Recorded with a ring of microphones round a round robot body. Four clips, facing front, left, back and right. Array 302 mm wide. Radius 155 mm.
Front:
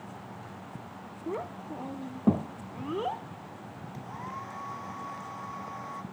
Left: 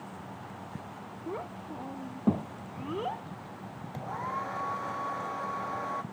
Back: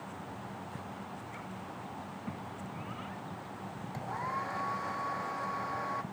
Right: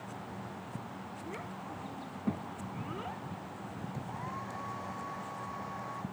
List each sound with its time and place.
1.3 s a child speaking: 25° left; by 3.2 s 30° left
3.9 s a hair dryer: 110° left